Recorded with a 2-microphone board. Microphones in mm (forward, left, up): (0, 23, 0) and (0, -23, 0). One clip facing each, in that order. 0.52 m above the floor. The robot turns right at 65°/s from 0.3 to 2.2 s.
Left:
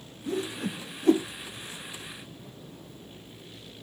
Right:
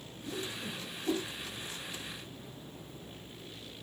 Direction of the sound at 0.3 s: 50° left (ahead or behind).